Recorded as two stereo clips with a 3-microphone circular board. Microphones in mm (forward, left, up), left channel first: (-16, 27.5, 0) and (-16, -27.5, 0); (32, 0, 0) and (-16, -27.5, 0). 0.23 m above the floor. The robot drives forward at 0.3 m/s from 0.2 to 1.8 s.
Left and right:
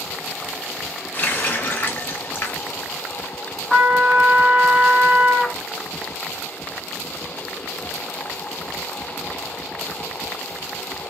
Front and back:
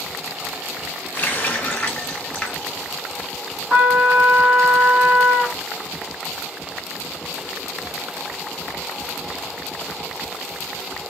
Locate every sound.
1.1 s a running tap: 65° left, 0.8 m; by 2.7 s 85° left, 0.7 m
3.7 s a trumpet: 165° right, 2.0 m